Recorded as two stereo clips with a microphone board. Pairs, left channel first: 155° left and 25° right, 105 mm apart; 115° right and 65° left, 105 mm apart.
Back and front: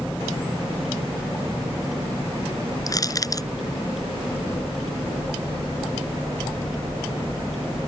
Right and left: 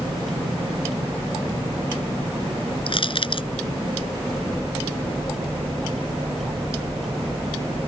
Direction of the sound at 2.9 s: 145° right.